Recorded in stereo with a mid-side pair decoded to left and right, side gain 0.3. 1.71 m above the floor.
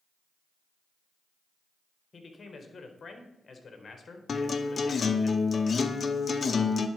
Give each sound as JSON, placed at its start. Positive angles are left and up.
{"t": 2.1, "sound": "a man speaking", "azimuth_deg": 50, "distance_m": 1.8}
{"t": 4.3, "sound": "a guitar", "azimuth_deg": 50, "distance_m": 0.7}